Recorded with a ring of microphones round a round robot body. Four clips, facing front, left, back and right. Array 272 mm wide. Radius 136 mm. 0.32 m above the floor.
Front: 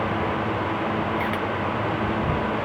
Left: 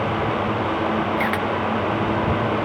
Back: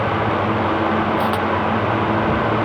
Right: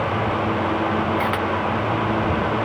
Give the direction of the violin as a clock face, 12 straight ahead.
No violin in this recording.